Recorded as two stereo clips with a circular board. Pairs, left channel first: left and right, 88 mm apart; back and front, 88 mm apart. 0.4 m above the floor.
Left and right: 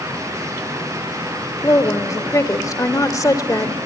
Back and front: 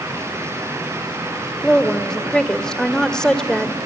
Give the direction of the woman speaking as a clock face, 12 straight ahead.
9 o'clock.